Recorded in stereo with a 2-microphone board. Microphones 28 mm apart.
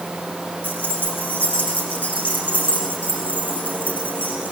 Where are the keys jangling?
75° left (ahead or behind), 7 m; by 4.5 s 85° left, 10 m.